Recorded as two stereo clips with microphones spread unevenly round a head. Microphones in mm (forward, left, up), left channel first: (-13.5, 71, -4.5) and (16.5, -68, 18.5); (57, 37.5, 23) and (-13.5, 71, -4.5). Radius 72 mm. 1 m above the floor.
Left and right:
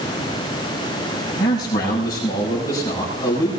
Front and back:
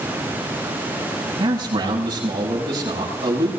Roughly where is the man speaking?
Behind.